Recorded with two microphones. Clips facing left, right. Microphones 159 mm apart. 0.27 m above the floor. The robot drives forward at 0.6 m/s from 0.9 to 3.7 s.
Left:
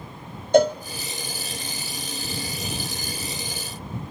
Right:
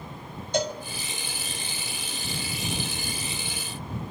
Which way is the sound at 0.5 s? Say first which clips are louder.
Left 11 dB; 55° left (ahead or behind).